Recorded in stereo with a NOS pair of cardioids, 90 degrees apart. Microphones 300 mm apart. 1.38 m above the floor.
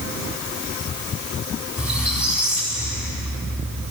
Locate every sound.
1.8 s a squeak: 5° right, 4.5 m